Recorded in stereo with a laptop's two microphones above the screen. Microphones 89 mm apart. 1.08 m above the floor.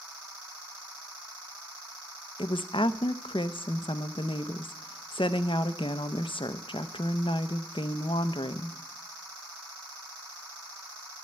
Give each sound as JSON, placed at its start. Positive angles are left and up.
{"t": 2.4, "sound": "a woman speaking", "side_deg": 75, "distance_m": 0.6}